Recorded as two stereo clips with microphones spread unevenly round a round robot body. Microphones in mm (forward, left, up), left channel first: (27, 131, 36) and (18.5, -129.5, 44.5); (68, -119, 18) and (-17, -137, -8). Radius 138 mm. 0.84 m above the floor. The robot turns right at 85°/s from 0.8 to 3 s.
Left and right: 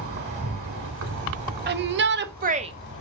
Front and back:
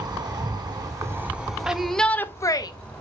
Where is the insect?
125° right, 0.9 m; by 3.0 s 65° left, 0.9 m.